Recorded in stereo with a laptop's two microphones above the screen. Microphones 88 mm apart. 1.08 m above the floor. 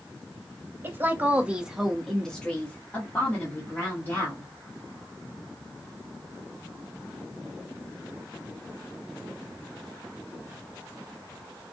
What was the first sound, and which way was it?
A woman speaking, 25° right (ahead or behind).